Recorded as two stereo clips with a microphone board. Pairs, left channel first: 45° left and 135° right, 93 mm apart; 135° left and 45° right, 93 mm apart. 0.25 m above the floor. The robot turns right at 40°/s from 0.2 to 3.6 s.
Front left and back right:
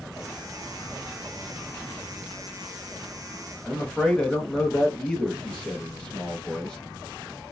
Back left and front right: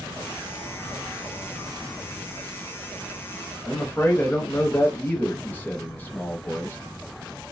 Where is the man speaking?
110° left, 1.0 m.